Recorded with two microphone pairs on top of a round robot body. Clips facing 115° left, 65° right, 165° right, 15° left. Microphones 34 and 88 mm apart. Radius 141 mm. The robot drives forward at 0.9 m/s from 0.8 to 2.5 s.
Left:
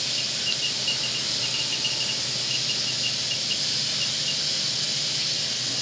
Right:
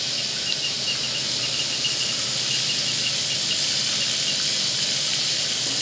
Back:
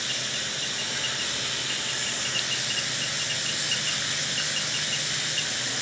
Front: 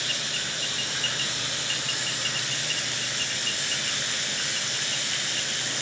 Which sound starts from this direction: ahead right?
Running water, at 0.0 s.